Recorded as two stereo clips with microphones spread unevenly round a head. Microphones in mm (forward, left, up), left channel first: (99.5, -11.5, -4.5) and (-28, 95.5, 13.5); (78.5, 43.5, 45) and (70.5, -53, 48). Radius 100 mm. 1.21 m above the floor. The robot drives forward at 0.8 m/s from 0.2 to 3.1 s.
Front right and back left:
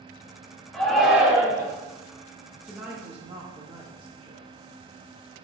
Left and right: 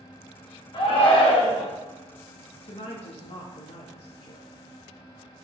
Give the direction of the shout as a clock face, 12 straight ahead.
10 o'clock.